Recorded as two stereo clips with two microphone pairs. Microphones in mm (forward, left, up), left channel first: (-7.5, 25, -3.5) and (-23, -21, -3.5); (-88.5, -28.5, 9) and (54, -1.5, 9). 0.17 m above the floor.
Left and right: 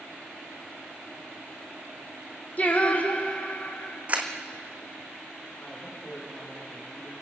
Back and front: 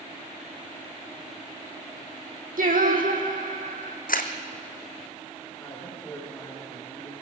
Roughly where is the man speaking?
Behind left.